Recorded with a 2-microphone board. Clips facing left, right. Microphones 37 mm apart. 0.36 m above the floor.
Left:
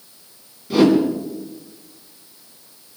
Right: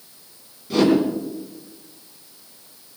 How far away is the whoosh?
About 3.5 m.